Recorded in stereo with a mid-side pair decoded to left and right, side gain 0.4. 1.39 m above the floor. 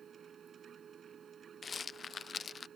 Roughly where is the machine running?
Ahead right.